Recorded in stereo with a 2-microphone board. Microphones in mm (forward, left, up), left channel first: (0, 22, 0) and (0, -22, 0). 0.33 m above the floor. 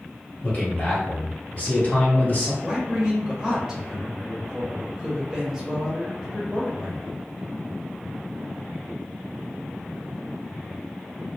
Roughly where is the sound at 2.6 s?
Centre.